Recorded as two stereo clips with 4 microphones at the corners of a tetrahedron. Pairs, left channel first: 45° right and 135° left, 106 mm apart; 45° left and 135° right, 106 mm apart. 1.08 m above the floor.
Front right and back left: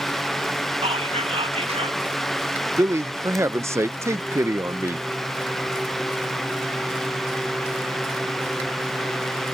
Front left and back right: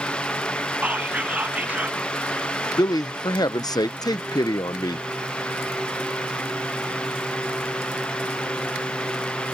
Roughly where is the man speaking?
Left.